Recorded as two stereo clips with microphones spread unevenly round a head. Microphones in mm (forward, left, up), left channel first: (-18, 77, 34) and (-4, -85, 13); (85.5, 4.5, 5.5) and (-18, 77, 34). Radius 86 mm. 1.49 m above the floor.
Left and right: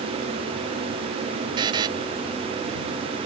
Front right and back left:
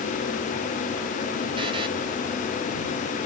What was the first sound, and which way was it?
A buzzer, 150° right.